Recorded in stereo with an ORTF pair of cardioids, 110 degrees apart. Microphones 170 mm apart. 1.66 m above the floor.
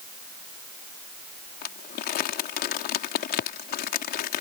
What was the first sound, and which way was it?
Crumpling, 65° left.